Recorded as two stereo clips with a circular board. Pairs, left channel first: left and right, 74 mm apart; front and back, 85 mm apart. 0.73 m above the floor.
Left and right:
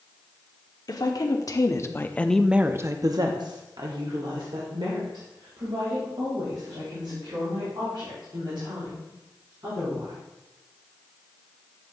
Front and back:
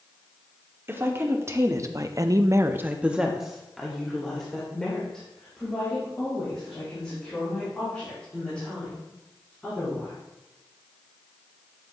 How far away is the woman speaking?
About 1.4 m.